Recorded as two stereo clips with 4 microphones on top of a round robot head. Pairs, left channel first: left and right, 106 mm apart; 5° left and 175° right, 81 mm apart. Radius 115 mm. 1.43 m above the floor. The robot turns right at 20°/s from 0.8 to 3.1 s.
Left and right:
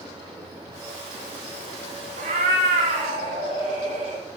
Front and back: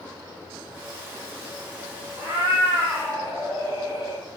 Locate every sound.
2.2 s a cat meowing: 115° right, 1.1 m; by 4.2 s 95° right, 1.1 m